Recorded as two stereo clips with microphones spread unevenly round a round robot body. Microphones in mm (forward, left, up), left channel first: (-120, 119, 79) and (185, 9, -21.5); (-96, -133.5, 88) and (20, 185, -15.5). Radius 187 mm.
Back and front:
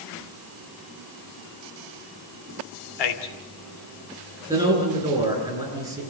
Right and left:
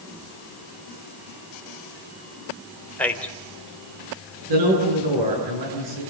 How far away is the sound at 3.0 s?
About 2.5 m.